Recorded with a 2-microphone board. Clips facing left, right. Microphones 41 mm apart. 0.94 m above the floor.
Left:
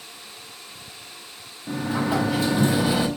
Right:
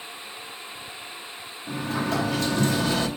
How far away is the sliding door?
About 1.1 m.